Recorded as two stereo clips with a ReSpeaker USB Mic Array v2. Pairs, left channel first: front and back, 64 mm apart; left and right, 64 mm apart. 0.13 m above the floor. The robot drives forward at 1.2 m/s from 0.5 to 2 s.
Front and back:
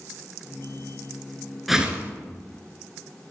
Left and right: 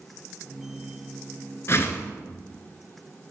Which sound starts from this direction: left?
A whoosh, at 1.7 s.